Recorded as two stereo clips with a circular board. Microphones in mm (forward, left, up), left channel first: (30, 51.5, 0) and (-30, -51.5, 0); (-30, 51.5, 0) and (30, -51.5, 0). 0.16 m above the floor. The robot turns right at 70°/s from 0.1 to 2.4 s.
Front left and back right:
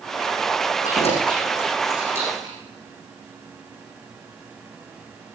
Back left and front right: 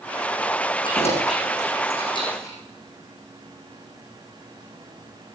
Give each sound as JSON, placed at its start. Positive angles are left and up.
{"t": 0.8, "sound": "keys jangling", "azimuth_deg": 75, "distance_m": 7.0}